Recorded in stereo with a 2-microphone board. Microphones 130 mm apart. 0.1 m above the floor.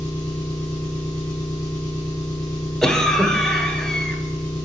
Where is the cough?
5° left (ahead or behind), 1.4 m.